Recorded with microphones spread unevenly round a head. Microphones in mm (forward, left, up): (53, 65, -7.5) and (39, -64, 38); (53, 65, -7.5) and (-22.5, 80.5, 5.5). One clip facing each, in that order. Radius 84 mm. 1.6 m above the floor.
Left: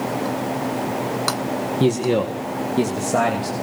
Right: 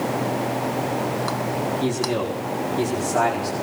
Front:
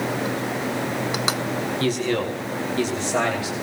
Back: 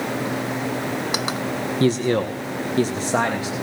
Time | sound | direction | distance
1.8 | a man speaking | 105° left | 1.5 m